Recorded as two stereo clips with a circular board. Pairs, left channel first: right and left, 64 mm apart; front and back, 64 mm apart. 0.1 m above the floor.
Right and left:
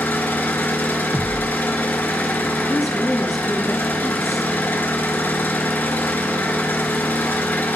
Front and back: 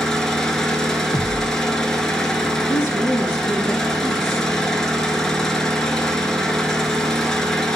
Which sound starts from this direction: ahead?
A woman speaking, at 2.7 s.